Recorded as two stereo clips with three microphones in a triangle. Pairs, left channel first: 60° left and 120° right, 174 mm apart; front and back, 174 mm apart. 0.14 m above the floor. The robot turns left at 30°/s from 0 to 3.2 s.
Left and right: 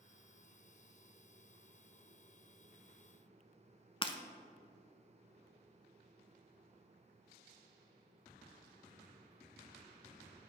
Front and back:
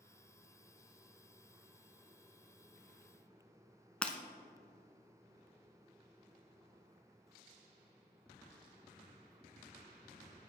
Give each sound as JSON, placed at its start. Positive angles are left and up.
{"t": 4.0, "sound": "breaking glass", "azimuth_deg": 80, "distance_m": 0.7}